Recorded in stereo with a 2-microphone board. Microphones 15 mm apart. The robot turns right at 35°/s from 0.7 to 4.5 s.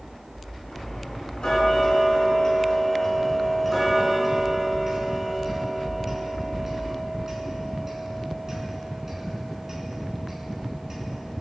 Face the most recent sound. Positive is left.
turn(degrees=-155)